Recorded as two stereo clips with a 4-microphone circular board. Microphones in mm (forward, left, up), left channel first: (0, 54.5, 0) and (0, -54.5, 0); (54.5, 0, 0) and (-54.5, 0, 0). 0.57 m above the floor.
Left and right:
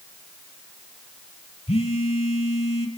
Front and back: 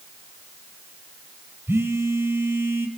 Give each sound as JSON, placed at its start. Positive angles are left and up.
{"t": 1.7, "sound": "a phone buzzing", "azimuth_deg": 115, "distance_m": 1.3}